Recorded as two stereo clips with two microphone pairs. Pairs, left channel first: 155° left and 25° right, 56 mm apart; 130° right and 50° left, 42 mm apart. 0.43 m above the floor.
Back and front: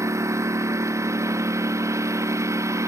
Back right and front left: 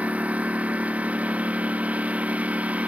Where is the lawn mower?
Straight ahead.